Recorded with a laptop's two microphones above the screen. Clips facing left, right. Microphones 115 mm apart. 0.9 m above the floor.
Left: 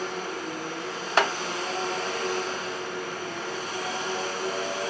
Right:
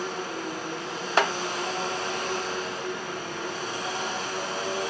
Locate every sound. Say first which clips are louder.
0.0 s a machine running: even; 25° right (ahead or behind), 3 m